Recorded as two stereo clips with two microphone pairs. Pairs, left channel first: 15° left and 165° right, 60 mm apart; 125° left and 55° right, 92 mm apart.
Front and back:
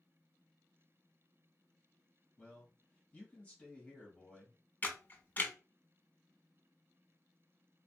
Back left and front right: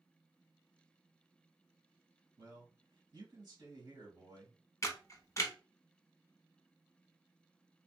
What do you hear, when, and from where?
2.4 s a man speaking: 50° right, 1.5 m
4.8 s a camera shutter: 75° left, 0.6 m